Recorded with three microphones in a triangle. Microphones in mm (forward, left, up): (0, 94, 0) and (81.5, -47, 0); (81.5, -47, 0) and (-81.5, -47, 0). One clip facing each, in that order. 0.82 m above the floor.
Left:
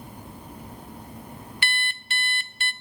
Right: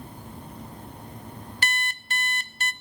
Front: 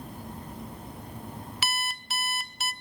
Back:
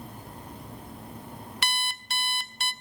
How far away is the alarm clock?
About 0.5 m.